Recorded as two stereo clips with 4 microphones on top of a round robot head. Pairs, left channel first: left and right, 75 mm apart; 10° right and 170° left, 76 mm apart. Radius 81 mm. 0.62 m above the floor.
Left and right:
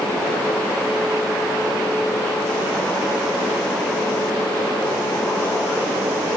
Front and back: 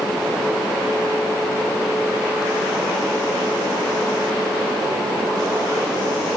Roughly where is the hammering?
I don't hear hammering.